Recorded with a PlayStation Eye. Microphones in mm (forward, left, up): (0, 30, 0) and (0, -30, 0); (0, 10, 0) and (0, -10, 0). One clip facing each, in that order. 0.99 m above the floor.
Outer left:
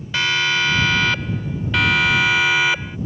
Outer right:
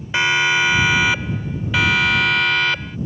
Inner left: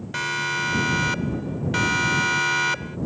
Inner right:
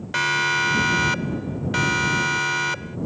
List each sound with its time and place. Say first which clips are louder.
0.1 s a siren: outer right 3 dB, inner right 5 dB; 20° right (ahead or behind); by 3.0 s 10° left (ahead or behind)